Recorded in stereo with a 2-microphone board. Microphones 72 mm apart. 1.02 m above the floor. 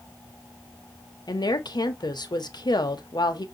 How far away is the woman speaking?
About 1.0 m.